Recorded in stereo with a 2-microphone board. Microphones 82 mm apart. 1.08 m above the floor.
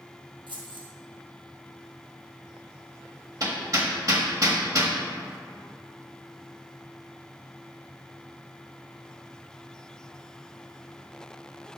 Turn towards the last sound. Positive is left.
turn(degrees=-45)  # may be behind; listen again after turning